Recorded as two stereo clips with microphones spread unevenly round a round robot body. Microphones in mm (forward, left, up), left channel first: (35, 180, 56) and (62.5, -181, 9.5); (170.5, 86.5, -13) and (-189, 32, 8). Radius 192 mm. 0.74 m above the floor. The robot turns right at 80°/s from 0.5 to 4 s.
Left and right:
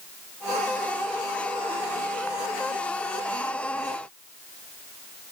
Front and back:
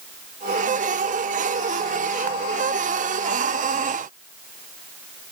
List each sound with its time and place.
Only background noise.